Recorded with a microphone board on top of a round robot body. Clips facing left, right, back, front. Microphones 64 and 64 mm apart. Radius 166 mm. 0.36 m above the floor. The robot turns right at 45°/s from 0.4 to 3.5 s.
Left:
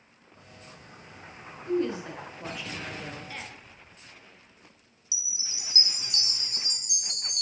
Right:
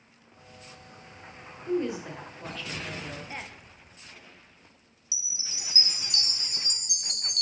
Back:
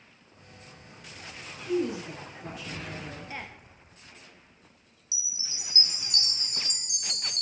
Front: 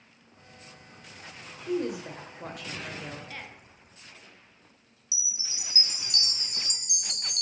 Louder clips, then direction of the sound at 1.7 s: Left 1 dB, back 1 dB; 25° right.